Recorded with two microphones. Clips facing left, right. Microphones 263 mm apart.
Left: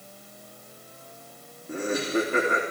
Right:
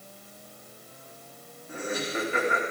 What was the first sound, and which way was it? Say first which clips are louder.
Laughter: left 6 dB; 50° left (ahead or behind).